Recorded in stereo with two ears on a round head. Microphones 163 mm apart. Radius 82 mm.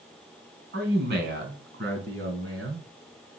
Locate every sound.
0.7 s a man speaking: 65° right (ahead or behind), 3 m; by 2.9 s 70° right (ahead or behind), 4 m